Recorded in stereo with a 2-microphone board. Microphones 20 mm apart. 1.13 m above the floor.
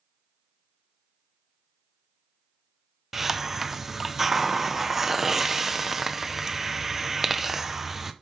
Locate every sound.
3.1 s a hiss: 20° right (ahead or behind), 0.6 m